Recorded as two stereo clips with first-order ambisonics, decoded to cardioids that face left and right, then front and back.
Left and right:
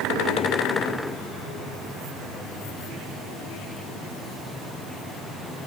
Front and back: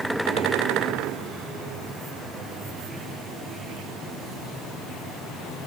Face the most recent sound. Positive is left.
No sound to turn to.